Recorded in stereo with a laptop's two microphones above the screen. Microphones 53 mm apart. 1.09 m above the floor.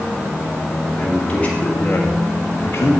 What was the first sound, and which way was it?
A man speaking, 25° left (ahead or behind).